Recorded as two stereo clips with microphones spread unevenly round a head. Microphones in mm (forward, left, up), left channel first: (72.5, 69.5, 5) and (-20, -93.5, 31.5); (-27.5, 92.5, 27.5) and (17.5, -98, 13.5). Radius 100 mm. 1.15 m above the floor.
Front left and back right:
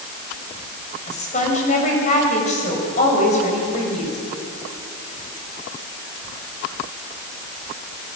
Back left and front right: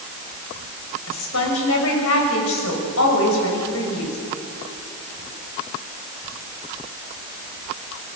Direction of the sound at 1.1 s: 115° left.